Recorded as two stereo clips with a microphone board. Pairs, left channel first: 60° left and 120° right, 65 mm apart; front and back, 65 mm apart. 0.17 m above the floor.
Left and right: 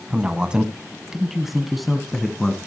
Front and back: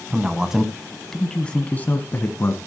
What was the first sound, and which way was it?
A man speaking, 145° right.